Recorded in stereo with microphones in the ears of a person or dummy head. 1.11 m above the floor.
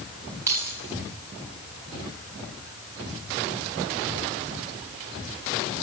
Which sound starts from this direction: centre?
Keys jangling, at 0.5 s.